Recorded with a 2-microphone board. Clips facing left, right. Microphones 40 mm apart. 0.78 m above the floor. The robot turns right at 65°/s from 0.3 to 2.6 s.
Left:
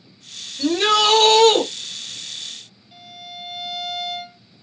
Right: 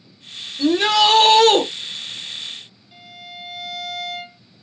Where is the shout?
175° left, 1.5 m; by 1.6 s 115° right, 1.5 m.